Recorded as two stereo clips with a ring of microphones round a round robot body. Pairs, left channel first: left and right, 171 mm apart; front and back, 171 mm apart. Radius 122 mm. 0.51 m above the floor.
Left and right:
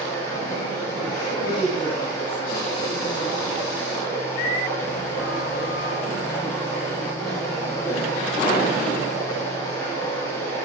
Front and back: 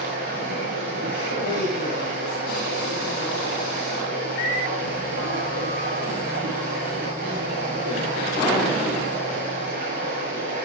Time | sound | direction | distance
0.0 | running water | 175° left | 8 m
1.4 | a woman speaking | 165° right | 8 m